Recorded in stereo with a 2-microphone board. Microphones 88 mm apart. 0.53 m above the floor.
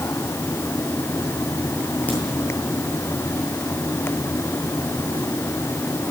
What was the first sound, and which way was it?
A crack, 20° left (ahead or behind).